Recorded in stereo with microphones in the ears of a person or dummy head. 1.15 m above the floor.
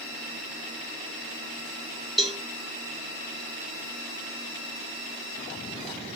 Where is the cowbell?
Centre (ahead or behind), 0.7 m.